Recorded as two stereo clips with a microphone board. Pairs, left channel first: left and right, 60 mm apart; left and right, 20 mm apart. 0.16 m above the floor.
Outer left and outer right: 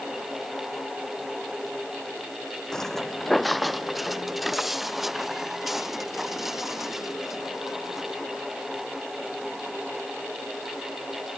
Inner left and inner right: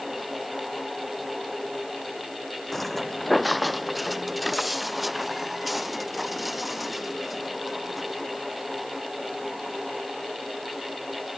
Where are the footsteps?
10° left (ahead or behind); by 8.2 s 5° right (ahead or behind).